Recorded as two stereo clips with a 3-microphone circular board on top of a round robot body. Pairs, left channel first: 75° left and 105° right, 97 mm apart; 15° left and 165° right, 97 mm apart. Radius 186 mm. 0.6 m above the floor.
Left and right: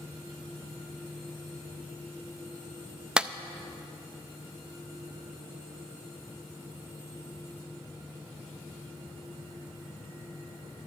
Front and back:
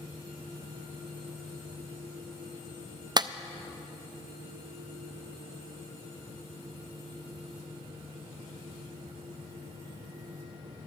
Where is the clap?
Straight behind, 0.5 m.